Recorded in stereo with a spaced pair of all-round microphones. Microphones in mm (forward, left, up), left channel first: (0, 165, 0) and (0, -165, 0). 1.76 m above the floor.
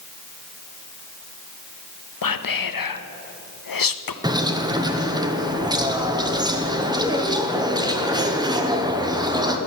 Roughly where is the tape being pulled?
No tape being pulled in this recording.